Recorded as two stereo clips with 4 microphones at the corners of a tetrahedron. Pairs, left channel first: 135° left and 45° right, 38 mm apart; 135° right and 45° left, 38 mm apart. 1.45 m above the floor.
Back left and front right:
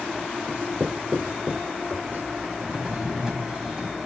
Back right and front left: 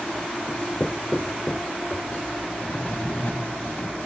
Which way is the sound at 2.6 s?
115° right.